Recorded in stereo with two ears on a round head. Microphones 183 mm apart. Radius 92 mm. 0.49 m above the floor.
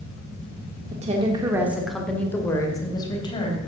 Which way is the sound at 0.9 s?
35° right (ahead or behind).